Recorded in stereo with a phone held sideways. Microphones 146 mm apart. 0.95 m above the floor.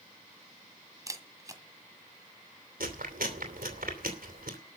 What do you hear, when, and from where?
1.1 s a camera shutter: 25° right (ahead or behind), 1.7 m
2.8 s chewing: 85° right, 3 m